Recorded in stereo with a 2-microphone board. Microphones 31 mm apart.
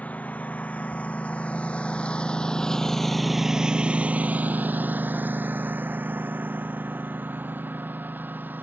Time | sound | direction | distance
0.0 | a lawn mower | 50° left (ahead or behind) | ?